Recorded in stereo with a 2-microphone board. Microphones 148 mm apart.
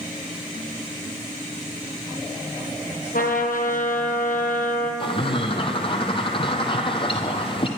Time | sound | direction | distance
3.1 | a trumpet | 70° left (ahead or behind) | 1.7 m
5.0 | a bird | 35° left (ahead or behind) | 1.1 m